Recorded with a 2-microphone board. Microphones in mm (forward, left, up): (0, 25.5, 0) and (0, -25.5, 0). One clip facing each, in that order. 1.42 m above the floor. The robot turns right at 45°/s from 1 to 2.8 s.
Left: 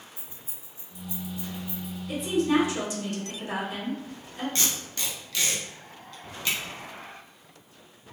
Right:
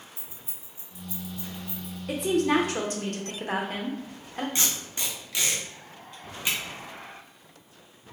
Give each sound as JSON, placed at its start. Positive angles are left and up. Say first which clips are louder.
{"t": 0.2, "sound": "keys jangling", "louder": "even", "side_deg": -30, "distance_m": 1.0}
{"t": 2.1, "sound": "a woman speaking", "louder": "right 1 dB", "azimuth_deg": -80, "distance_m": 0.7}
{"t": 4.5, "sound": "tape being pulled", "louder": "even", "side_deg": -20, "distance_m": 0.8}